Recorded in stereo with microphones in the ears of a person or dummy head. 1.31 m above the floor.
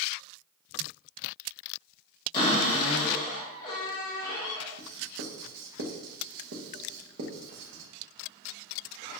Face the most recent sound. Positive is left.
turn(degrees=-75)  # may be behind; listen again after turning